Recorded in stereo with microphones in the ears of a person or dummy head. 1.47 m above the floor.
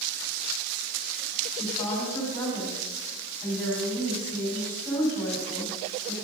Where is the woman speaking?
5° left (ahead or behind), 3 m.